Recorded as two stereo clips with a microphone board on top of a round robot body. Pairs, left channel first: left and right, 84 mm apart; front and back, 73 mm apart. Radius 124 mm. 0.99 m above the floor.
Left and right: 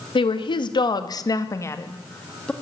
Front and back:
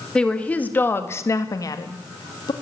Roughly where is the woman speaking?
Left.